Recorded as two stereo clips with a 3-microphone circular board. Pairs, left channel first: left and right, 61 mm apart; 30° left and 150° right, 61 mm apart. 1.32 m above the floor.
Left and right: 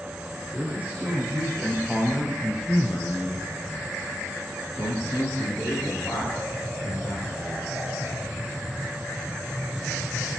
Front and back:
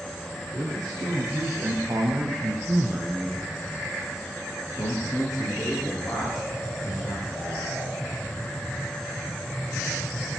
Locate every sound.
0.5 s a man speaking: 155° right, 2 m; by 7.7 s 50° left, 4 m